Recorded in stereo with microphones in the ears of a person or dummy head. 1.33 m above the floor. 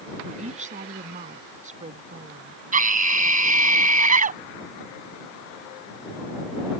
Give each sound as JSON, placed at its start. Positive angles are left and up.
{"t": 0.2, "sound": "a woman speaking", "side_deg": -35}
{"t": 2.7, "sound": "a scream", "side_deg": -40}